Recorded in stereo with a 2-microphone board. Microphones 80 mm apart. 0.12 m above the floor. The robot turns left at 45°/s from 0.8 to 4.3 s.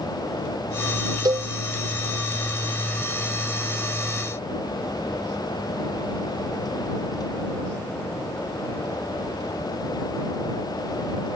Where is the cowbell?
55° right (ahead or behind); by 1.5 s 65° right (ahead or behind).